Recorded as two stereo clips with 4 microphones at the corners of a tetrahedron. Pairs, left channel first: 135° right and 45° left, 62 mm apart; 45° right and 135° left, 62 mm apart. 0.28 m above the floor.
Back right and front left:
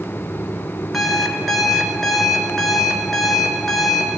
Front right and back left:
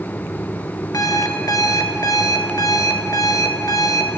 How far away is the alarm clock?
About 1.3 m.